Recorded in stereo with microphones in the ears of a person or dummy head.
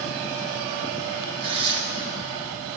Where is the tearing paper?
25° right (ahead or behind), 1.8 m.